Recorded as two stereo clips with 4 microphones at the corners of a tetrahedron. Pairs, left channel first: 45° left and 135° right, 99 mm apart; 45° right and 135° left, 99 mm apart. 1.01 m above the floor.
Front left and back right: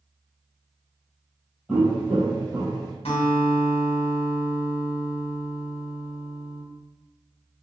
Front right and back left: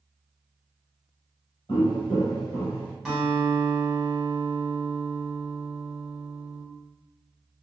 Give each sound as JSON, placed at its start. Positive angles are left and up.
{"t": 1.7, "sound": "footsteps", "azimuth_deg": -55, "distance_m": 1.7}
{"t": 3.0, "sound": "a guitar", "azimuth_deg": 50, "distance_m": 1.2}